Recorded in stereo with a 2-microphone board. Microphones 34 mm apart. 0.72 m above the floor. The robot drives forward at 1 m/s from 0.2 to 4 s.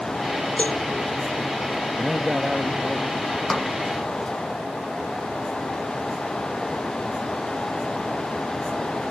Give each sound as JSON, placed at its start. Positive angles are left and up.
{"t": 0.6, "sound": "a cowbell", "side_deg": 50}
{"t": 2.0, "sound": "a man speaking", "side_deg": -15}
{"t": 3.5, "sound": "a snare drum", "side_deg": 10}